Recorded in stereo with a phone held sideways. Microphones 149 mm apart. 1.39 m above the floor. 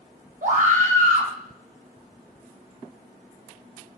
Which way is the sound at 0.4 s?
55° right (ahead or behind).